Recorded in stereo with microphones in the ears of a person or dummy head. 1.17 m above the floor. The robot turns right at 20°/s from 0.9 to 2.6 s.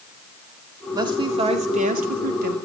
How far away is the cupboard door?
I don't hear a cupboard door.